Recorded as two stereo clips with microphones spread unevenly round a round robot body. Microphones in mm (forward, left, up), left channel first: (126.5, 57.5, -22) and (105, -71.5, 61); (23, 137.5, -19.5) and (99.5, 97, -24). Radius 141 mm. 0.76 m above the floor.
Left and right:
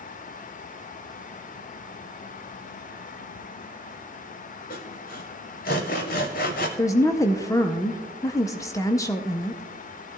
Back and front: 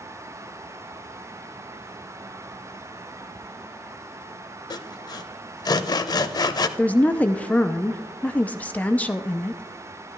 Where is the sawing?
150° left, 0.6 m.